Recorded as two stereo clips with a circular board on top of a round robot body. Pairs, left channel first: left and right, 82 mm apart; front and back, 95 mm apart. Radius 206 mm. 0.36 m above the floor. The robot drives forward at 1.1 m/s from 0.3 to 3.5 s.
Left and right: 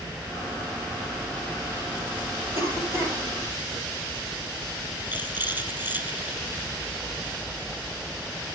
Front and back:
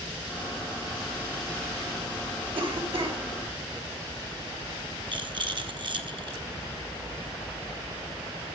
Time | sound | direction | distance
2.5 | a cough | 145° right | 4 m
5.1 | a rattle | 155° right | 1.7 m